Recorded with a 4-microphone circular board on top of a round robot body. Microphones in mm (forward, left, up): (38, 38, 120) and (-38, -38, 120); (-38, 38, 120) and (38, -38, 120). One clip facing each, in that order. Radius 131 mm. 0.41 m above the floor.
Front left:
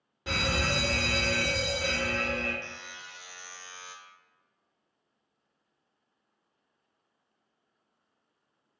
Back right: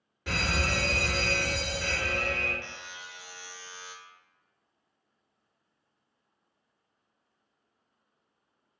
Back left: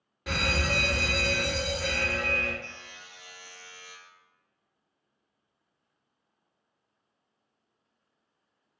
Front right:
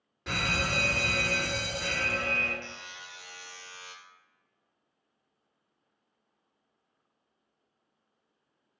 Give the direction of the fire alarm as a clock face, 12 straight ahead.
10 o'clock.